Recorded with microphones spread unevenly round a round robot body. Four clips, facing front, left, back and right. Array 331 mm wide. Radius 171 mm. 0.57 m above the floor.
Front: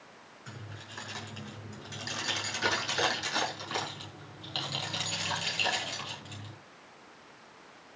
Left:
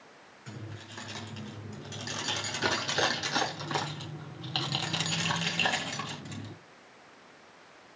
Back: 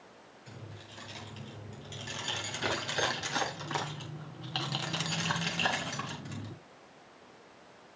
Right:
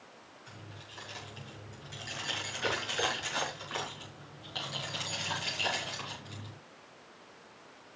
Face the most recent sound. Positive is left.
turn(degrees=135)